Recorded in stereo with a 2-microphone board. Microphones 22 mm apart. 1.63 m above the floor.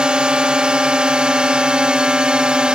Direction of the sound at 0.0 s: 45° right (ahead or behind).